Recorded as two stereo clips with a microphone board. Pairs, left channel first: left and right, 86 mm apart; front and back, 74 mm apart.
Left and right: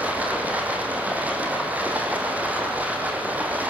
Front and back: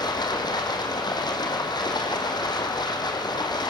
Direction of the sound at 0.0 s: 15° right.